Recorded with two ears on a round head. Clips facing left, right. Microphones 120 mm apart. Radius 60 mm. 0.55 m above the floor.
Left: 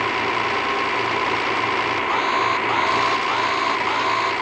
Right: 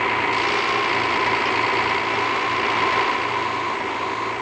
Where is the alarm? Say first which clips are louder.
Left 2 dB; 75° left (ahead or behind).